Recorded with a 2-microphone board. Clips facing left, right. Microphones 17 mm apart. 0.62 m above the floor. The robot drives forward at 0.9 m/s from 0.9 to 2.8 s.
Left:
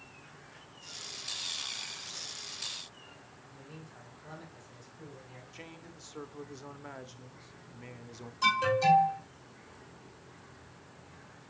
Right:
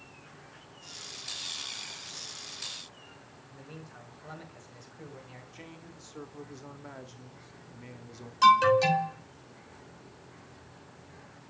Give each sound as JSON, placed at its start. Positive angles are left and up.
{"t": 3.5, "sound": "a man speaking", "side_deg": -60, "distance_m": 3.5}
{"t": 5.5, "sound": "a man speaking", "side_deg": 10, "distance_m": 0.9}
{"t": 8.4, "sound": "an alarm", "side_deg": -50, "distance_m": 3.5}